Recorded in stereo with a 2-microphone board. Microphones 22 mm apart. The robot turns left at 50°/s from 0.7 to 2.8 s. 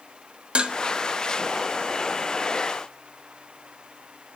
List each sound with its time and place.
0.6 s dishes clattering: 45° right (ahead or behind), 0.7 m; by 0.8 s 50° right (ahead or behind), 0.7 m